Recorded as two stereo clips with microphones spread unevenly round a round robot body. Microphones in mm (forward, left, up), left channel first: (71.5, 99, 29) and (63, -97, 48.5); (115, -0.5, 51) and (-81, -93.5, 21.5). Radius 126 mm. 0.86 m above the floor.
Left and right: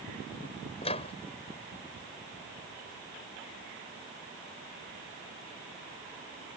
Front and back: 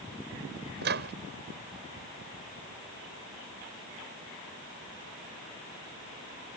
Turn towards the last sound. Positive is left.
turn(degrees=155)